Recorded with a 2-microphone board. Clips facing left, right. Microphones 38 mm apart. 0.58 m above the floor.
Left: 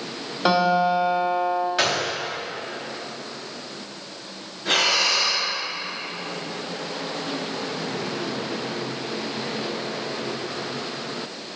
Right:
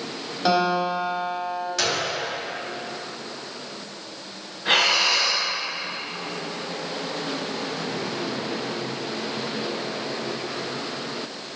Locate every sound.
0.5 s a guitar: 15° left (ahead or behind), 2 m
1.8 s a gunshot: 20° left (ahead or behind), 1.1 m
4.7 s breathing: 20° right (ahead or behind), 1.3 m